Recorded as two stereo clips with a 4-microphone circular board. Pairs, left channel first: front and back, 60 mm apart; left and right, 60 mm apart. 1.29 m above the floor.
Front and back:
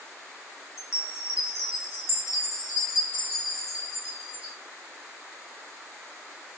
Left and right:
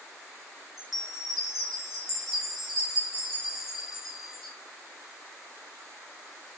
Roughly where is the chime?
Ahead.